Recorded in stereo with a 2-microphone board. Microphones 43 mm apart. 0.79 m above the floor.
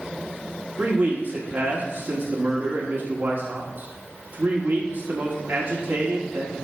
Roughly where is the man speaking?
Right.